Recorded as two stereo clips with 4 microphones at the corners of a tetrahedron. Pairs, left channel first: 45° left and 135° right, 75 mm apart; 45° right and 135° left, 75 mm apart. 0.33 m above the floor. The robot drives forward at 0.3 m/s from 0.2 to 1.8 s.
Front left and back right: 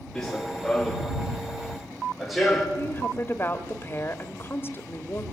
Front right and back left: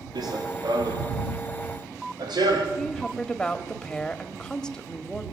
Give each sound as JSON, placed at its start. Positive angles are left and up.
{"t": 0.1, "sound": "running footsteps", "azimuth_deg": 125, "distance_m": 3.0}
{"t": 2.8, "sound": "a woman speaking", "azimuth_deg": 25, "distance_m": 1.5}